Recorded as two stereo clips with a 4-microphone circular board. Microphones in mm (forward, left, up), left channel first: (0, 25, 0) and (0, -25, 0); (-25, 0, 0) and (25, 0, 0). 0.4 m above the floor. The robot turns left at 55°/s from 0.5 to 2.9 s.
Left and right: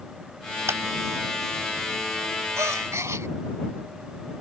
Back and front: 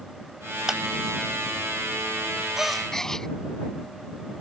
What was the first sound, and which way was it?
A clap, 80° right.